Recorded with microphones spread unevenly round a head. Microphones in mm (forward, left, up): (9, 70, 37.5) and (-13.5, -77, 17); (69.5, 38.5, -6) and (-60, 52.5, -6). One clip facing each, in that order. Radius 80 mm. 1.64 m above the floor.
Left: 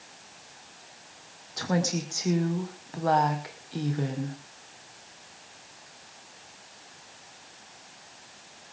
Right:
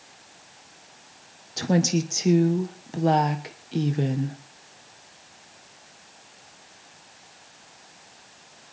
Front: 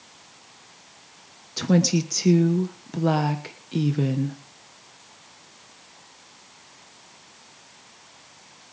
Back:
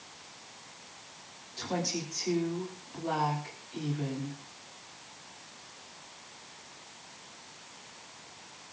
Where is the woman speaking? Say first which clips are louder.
Right 5 dB, front 13 dB; 35° right, 1.3 m.